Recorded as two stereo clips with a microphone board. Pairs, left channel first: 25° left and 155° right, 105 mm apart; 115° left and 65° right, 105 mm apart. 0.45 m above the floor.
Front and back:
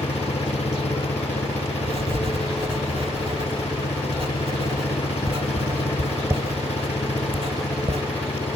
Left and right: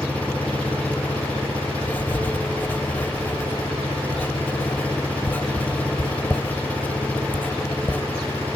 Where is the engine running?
35° left.